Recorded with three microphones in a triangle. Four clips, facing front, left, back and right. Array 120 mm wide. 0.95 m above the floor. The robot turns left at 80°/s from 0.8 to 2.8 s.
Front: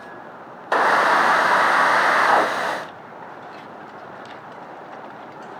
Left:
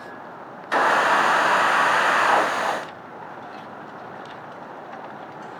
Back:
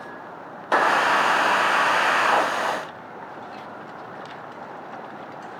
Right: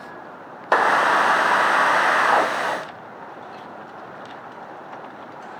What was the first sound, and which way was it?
A clap, 85° right.